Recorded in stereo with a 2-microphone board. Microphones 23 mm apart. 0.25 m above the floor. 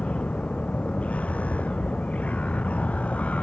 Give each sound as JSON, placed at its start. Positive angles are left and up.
{"t": 0.0, "sound": "a vehicle", "side_deg": 70}